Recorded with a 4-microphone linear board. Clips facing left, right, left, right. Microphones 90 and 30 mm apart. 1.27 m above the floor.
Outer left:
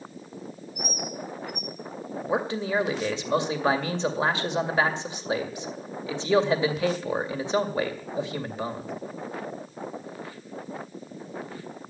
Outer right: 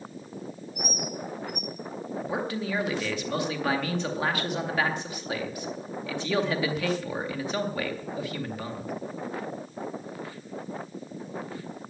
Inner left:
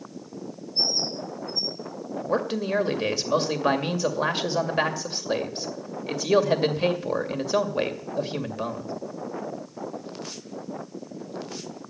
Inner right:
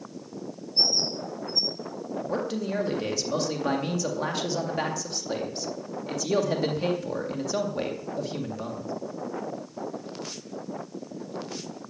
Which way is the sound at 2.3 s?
25° left (ahead or behind).